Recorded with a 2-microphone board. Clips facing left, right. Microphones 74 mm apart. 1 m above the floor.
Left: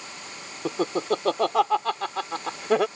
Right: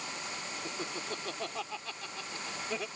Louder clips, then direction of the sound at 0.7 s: Left 17 dB; 80° left.